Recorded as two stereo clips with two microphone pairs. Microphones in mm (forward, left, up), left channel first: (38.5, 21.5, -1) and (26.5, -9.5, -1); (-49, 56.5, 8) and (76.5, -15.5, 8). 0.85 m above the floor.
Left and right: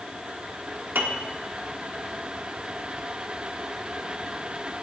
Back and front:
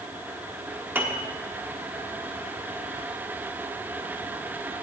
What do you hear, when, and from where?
0.9 s a piano: 105° right, 1.2 m